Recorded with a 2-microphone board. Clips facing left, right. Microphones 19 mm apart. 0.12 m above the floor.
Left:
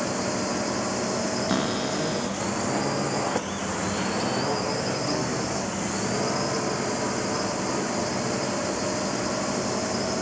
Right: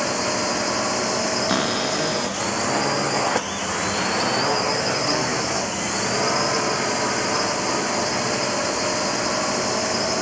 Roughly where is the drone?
Right.